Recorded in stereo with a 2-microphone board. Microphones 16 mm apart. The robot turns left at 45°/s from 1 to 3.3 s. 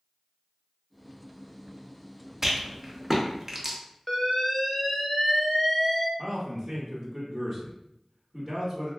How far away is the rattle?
About 0.7 m.